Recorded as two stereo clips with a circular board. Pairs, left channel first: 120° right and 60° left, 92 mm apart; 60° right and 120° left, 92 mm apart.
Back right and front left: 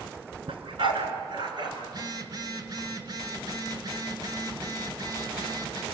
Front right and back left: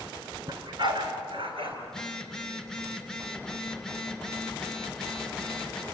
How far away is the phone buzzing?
About 1.8 m.